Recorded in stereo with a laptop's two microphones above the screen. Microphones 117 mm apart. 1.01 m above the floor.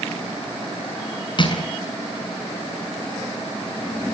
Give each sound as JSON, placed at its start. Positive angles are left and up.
{"t": 1.4, "sound": "crushing", "side_deg": 45, "distance_m": 6.5}